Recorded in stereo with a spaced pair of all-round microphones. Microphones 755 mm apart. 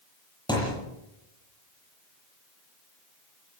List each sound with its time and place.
0.5 s a thud: 5° left (ahead or behind), 9 m